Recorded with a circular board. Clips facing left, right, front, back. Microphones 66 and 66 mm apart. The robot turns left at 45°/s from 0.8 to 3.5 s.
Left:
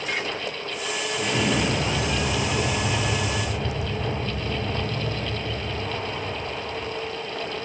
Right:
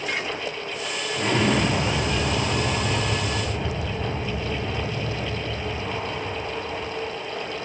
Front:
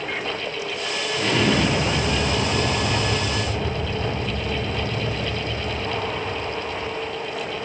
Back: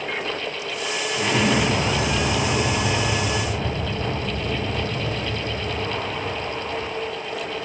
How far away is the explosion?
About 1.0 m.